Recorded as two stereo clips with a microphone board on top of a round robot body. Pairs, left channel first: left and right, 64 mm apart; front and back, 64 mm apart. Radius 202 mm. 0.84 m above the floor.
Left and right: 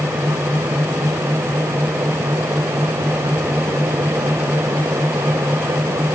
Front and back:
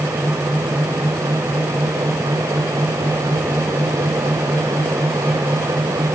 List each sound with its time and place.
Only background noise.